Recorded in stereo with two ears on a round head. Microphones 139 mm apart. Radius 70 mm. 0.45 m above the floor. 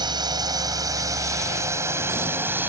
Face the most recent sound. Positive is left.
turn(degrees=-15)  # may be behind; listen again after turning